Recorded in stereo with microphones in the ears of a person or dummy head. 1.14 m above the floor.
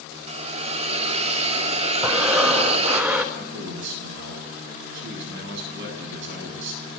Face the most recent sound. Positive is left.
turn(degrees=-65)  # may be behind; listen again after turning